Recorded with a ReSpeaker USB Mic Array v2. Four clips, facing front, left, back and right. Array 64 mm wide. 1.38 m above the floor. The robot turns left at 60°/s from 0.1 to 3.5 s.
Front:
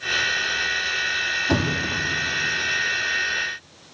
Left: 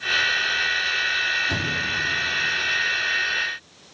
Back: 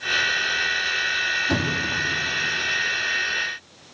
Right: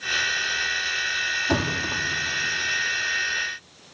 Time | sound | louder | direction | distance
1.5 | a thud | right 1 dB, front 1 dB | 45° right | 4 m